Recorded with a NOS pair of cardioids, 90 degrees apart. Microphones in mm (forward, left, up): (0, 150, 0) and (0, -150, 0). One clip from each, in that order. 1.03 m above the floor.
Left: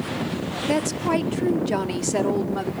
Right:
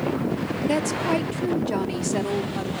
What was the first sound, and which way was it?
A woman speaking, 5° left.